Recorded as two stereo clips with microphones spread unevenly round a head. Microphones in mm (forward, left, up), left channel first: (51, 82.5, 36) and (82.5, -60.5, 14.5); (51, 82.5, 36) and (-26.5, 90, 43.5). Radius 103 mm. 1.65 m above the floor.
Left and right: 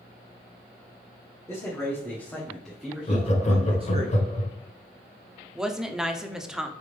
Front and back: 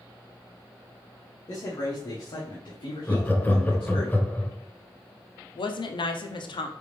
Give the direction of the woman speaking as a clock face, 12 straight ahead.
12 o'clock.